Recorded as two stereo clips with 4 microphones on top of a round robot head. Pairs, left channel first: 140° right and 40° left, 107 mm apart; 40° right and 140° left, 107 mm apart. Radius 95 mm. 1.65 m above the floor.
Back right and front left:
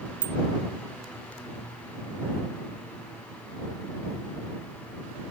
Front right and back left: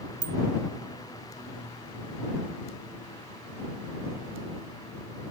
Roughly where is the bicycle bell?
Left.